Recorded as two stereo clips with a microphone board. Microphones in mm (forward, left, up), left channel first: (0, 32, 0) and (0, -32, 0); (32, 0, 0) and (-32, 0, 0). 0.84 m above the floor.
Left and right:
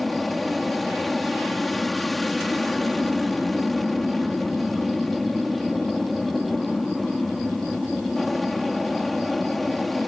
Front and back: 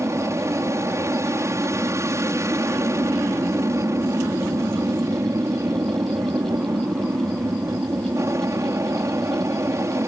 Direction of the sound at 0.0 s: Straight behind.